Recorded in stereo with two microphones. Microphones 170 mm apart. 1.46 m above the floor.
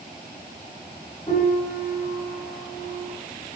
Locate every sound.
1.3 s a piano: 30° left (ahead or behind), 1.4 m